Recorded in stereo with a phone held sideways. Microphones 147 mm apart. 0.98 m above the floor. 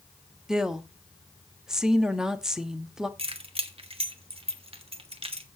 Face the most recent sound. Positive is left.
turn(degrees=-45)  # may be behind; listen again after turning